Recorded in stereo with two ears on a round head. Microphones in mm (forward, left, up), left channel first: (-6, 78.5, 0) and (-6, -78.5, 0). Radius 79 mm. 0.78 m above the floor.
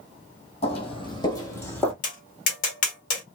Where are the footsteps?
35° left (ahead or behind), 1.4 m; by 1.9 s 5° left (ahead or behind), 1.2 m.